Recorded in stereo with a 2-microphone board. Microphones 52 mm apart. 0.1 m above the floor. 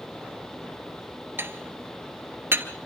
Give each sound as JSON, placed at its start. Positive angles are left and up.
{"t": 1.4, "sound": "dishes clattering", "side_deg": -45, "distance_m": 1.3}